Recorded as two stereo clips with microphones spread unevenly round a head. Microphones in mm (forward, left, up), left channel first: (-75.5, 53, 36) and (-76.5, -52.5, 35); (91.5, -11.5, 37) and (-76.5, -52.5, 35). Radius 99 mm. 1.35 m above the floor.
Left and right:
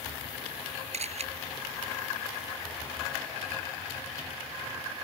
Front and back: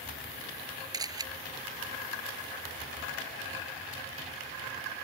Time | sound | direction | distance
0.9 | a camera shutter | 100° right | ?